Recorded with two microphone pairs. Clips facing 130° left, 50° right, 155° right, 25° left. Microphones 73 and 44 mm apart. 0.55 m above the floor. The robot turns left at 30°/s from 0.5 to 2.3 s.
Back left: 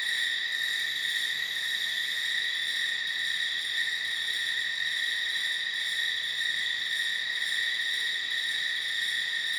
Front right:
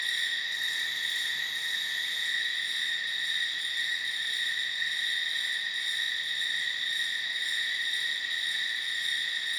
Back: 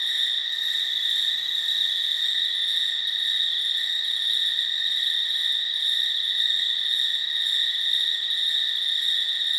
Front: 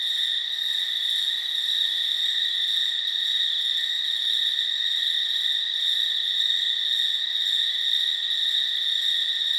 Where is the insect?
Straight behind, 1.3 m; by 9.6 s 125° left, 1.3 m.